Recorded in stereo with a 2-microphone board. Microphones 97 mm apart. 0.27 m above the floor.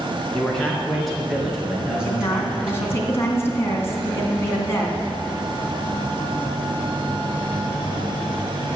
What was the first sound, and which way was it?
A man speaking, 5° left (ahead or behind).